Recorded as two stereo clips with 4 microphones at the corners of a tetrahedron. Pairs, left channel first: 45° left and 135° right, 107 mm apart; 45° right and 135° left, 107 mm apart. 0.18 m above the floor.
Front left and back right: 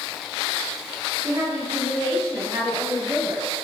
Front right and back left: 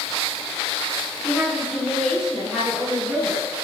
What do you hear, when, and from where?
1.2 s a woman speaking: 130° right, 1.4 m